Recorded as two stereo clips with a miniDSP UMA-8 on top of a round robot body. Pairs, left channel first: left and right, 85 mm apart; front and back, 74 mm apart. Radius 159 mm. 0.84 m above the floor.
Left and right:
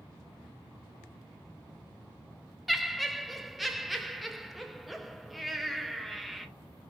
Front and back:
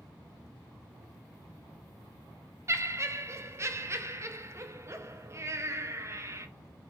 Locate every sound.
2.7 s laughter: straight behind, 0.6 m